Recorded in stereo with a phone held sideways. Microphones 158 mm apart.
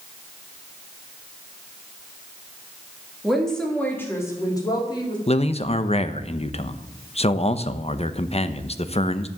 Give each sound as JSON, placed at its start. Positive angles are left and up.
{"t": 3.2, "sound": "a woman speaking", "side_deg": 0, "distance_m": 3.0}
{"t": 5.3, "sound": "a man speaking", "side_deg": 40, "distance_m": 0.8}